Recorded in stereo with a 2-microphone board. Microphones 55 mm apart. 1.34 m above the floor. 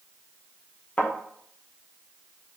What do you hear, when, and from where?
1.0 s a thud: 25° left (ahead or behind), 0.6 m